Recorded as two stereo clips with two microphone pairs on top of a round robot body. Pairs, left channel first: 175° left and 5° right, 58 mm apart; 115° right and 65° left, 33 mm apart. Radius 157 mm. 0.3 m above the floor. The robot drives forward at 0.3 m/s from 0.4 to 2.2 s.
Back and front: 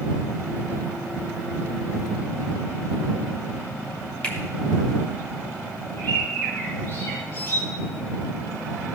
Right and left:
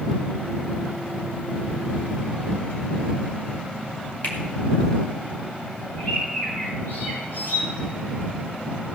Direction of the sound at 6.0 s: 135° right.